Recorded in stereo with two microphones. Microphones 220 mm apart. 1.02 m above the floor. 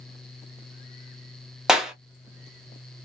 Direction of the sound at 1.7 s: Centre (ahead or behind).